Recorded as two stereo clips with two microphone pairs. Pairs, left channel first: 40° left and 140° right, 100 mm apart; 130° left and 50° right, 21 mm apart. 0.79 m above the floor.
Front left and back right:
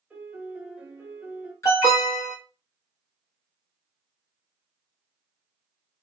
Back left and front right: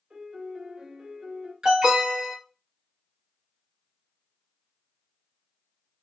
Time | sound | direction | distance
0.1 | a piano | 70° right | 0.8 m
1.6 | an alarm | 15° right | 1.1 m